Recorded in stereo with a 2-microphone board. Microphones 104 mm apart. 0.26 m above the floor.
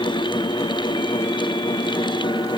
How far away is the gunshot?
I don't hear a gunshot.